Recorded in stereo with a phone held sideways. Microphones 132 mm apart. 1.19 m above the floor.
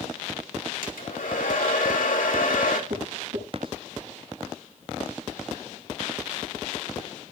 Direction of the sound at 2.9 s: 85° right.